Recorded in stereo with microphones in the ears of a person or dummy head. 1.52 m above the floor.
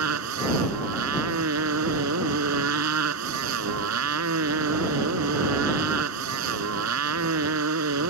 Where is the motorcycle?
75° right (ahead or behind).